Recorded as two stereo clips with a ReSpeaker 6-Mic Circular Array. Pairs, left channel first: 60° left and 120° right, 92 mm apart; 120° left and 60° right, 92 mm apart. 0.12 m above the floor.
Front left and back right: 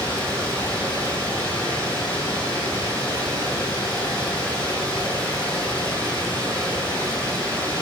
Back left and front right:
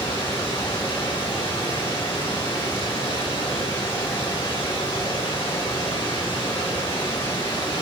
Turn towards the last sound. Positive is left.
turn(degrees=130)